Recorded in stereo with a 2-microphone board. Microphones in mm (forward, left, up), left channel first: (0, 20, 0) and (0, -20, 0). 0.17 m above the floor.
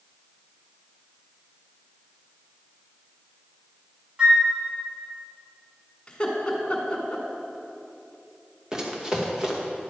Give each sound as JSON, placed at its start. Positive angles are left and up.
{"t": 4.2, "sound": "a flute", "side_deg": -25, "distance_m": 1.4}
{"t": 6.1, "sound": "laughter", "side_deg": 25, "distance_m": 1.5}
{"t": 8.7, "sound": "running footsteps", "side_deg": -15, "distance_m": 2.0}